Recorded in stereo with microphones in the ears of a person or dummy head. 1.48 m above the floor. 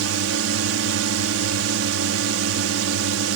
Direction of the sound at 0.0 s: 80° right.